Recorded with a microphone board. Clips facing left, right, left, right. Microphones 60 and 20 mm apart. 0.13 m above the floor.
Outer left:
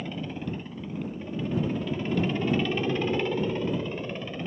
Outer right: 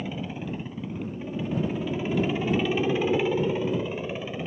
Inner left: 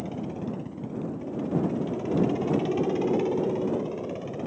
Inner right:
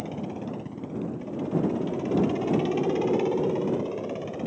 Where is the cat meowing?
No cat meowing in this recording.